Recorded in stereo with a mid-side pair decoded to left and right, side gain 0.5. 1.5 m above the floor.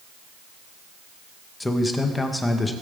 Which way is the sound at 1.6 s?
15° left.